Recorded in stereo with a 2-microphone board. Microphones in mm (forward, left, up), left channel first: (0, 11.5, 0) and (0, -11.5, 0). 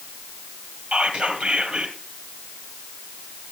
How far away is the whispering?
About 3 m.